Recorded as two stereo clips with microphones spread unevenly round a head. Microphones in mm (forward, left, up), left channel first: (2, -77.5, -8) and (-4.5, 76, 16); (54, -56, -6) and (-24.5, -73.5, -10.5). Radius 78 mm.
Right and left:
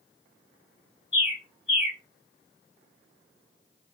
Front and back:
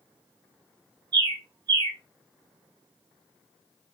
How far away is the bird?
About 1.8 m.